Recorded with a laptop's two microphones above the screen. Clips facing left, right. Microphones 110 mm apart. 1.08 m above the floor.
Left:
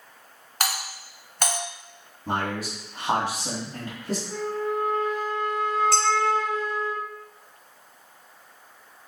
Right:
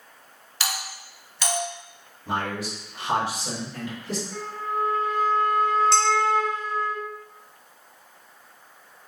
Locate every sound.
0.6 s a doorbell: 50° left (ahead or behind), 1.1 m
2.3 s a man speaking: 45° left (ahead or behind), 1.7 m
4.3 s a flute: 45° left (ahead or behind), 1.7 m
5.9 s dishes clattering: 25° right (ahead or behind), 1.5 m